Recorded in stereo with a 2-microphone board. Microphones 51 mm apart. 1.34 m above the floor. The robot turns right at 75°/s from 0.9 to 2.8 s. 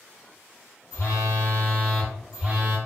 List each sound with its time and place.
0.9 s a phone buzzing: 95° left, 1.0 m; by 2.8 s 130° right, 1.0 m